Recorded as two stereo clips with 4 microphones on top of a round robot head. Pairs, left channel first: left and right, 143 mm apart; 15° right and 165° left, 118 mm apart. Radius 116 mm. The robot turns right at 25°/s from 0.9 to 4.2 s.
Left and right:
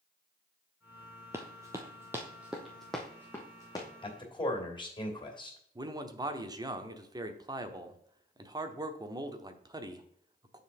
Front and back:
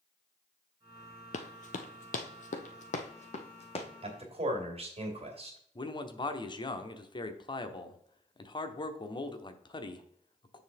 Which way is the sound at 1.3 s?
15° right.